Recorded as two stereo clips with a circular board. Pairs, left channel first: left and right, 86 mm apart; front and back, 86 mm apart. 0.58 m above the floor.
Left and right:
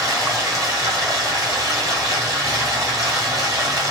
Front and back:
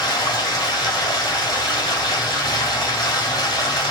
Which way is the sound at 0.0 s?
40° right.